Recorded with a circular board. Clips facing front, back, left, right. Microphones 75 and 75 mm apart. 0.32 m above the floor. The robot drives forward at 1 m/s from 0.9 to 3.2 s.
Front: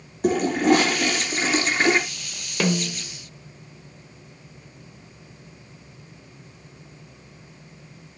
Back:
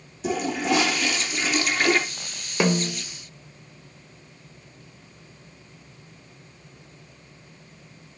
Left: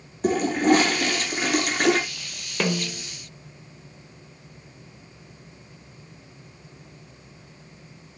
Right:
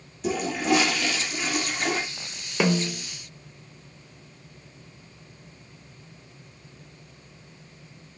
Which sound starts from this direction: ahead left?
A toilet flushing, at 0.2 s.